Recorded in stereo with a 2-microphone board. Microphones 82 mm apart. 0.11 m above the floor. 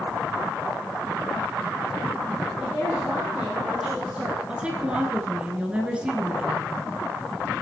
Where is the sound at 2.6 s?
15° right (ahead or behind), 3 m.